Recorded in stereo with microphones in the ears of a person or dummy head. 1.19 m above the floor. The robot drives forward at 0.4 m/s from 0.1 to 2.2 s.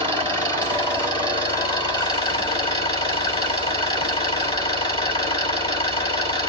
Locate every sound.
0.0 s an engine running: 20° left (ahead or behind), 3.5 m; by 6.5 s 25° left (ahead or behind), 2.5 m